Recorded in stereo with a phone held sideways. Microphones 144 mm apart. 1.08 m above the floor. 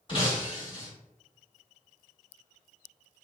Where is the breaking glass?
35° left (ahead or behind), 1.3 m.